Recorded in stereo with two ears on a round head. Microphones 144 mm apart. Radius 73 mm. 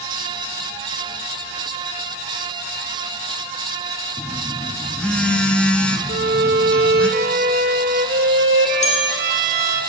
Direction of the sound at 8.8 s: 40° left (ahead or behind).